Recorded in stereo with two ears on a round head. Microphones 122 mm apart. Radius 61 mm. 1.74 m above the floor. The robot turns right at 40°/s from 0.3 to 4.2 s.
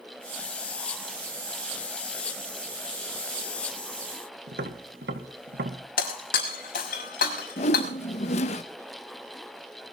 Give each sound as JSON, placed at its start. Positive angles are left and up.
{"t": 4.5, "sound": "tapping", "side_deg": -80, "distance_m": 2.5}
{"t": 6.0, "sound": "breaking glass", "side_deg": 75, "distance_m": 5.5}
{"t": 7.6, "sound": "a whoosh", "side_deg": 50, "distance_m": 1.6}